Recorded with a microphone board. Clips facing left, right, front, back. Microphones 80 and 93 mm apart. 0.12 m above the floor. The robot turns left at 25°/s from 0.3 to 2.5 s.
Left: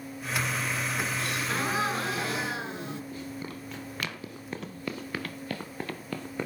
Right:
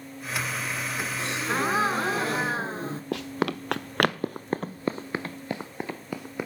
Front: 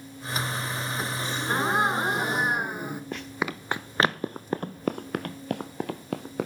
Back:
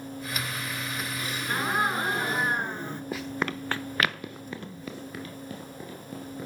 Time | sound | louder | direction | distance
1.2 | a gasp | right 3 dB, front 3 dB | 40° right | 1.3 m
3.1 | running footsteps | right 9 dB, back 3 dB | 95° right | 1.0 m